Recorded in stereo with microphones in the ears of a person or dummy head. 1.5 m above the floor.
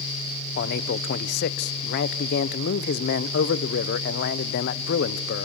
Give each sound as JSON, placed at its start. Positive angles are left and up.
{"t": 0.6, "sound": "a man speaking", "side_deg": 55, "distance_m": 0.7}